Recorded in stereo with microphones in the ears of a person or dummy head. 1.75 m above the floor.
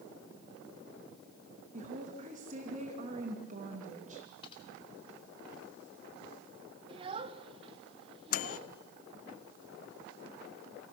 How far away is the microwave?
About 0.6 m.